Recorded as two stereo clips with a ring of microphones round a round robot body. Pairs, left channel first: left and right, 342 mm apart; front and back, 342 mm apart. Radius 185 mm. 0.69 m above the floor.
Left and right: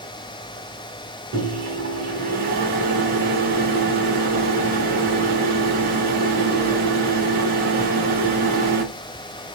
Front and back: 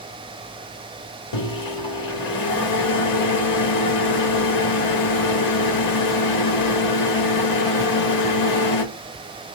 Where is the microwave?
25° right, 1.5 m.